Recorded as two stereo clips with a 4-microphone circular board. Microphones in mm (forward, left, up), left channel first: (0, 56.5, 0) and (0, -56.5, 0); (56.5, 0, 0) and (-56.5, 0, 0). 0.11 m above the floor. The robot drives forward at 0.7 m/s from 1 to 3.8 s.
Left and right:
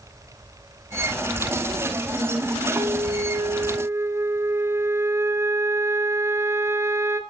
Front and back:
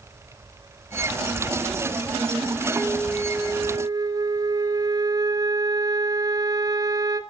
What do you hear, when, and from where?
2.7 s a flute: 95° right, 1.1 m; by 7.2 s 145° right, 1.4 m